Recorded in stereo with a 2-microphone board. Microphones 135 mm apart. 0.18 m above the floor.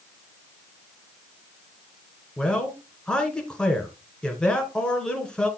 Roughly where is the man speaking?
Centre.